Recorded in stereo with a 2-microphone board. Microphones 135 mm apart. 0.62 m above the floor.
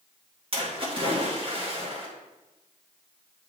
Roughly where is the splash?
Right.